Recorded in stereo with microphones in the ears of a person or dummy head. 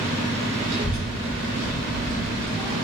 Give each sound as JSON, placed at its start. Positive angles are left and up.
{"t": 0.7, "sound": "a child speaking", "side_deg": -10, "distance_m": 0.8}